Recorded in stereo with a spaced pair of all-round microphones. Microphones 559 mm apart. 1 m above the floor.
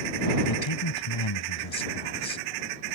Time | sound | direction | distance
0.5 | a man speaking | 55° left (ahead or behind) | ?